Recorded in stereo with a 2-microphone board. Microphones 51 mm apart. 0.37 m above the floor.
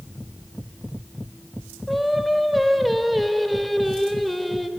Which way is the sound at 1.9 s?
Centre (ahead or behind).